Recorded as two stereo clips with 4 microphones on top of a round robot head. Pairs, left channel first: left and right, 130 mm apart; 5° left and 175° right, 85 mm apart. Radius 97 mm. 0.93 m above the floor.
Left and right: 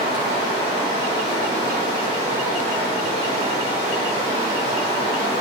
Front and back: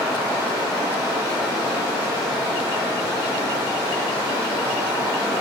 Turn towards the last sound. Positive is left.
turn(degrees=-60)